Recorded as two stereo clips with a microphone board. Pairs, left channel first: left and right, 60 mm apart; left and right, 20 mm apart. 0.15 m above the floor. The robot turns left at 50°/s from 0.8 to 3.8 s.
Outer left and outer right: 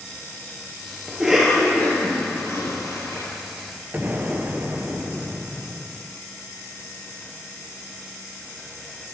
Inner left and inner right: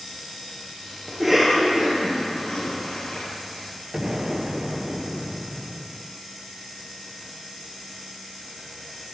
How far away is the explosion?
About 0.8 m.